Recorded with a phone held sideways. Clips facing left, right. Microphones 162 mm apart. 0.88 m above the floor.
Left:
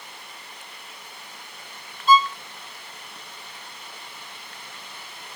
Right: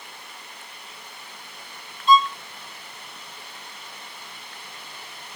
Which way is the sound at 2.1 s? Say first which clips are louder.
Even; 5° left (ahead or behind).